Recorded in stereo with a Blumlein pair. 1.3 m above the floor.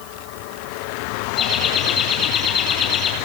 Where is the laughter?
25° left, 9 m.